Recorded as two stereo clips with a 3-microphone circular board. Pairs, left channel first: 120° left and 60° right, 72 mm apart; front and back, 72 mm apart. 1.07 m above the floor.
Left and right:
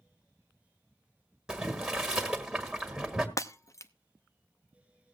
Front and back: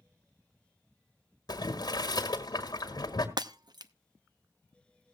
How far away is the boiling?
About 1.5 m.